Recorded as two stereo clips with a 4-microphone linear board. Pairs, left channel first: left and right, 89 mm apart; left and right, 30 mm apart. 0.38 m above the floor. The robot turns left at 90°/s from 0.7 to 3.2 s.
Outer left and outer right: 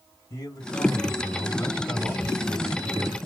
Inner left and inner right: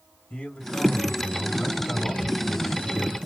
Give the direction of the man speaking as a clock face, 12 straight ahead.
8 o'clock.